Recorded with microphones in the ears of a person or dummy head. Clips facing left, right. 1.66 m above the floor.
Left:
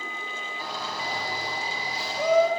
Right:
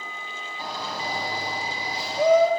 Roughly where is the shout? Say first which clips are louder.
Right 2 dB; right.